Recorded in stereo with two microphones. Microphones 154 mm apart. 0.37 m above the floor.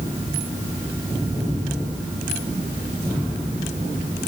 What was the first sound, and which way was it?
Only background noise.